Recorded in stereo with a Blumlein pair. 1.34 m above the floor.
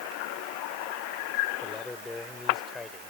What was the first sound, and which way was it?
A man speaking, 10° left.